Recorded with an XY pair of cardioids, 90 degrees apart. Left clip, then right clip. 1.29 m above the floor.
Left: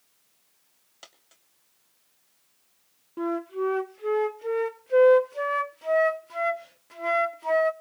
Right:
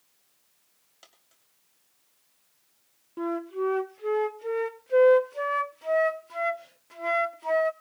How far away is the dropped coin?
About 2.5 m.